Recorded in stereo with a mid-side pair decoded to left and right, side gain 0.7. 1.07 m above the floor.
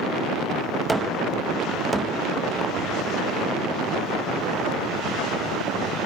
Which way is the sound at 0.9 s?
15° right.